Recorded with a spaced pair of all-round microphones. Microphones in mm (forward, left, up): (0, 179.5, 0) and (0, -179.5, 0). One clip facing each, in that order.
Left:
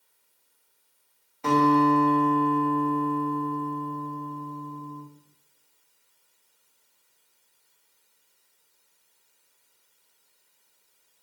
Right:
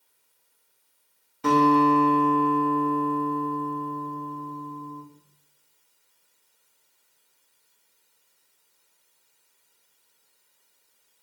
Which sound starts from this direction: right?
A guitar, at 1.4 s.